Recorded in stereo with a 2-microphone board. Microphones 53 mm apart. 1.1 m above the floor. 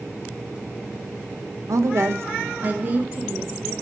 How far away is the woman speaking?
About 0.6 m.